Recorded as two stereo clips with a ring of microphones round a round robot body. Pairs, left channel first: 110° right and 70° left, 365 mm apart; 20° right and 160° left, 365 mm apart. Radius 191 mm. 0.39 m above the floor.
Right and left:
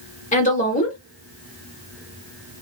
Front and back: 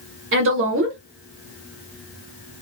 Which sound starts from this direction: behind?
A woman speaking, at 0.3 s.